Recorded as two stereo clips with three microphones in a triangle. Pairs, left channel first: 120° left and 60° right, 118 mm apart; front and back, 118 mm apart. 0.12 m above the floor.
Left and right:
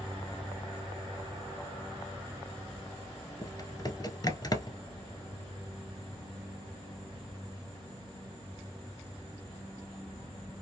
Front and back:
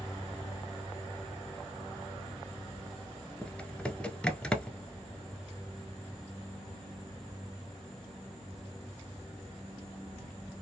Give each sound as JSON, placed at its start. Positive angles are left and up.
{"t": 3.4, "sound": "typing on a keyboard", "azimuth_deg": 80, "distance_m": 0.7}